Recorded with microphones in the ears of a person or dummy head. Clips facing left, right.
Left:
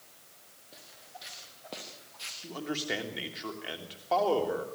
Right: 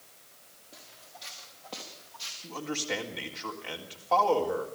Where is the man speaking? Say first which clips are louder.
Even; 15° left (ahead or behind), 3.5 m.